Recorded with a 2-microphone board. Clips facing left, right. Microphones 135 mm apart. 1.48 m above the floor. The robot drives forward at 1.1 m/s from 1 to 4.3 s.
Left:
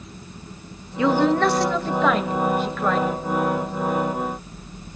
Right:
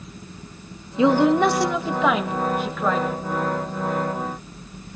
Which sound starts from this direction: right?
A woman speaking, at 1.0 s.